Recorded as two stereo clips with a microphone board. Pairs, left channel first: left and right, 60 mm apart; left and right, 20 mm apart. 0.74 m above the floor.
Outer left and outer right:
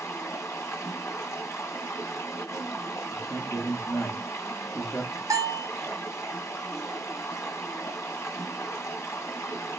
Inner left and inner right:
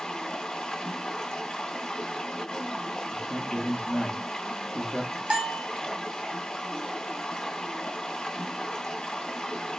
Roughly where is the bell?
Right.